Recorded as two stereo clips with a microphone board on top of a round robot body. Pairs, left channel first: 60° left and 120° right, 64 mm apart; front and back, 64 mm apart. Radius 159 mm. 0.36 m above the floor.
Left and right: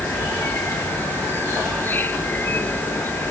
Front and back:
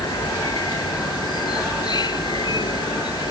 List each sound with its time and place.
0.0 s an insect: 5° right